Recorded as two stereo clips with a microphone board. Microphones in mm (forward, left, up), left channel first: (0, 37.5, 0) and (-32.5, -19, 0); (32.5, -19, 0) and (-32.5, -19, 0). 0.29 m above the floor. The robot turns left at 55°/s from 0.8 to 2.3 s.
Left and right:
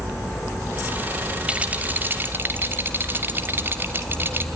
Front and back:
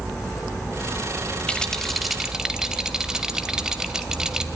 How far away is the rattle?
About 1.2 m.